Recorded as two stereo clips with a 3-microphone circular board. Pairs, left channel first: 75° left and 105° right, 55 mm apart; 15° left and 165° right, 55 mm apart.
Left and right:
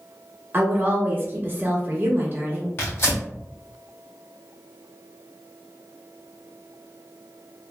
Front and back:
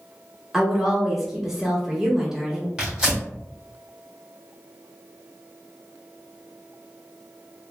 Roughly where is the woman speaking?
Right.